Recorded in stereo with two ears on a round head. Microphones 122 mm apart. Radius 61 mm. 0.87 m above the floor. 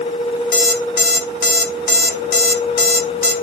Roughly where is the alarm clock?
Left.